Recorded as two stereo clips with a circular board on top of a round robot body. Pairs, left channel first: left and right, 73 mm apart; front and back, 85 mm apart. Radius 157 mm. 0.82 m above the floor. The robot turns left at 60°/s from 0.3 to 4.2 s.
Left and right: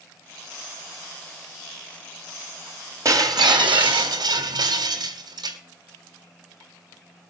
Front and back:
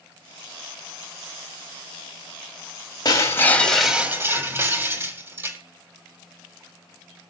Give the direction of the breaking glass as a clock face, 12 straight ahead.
2 o'clock.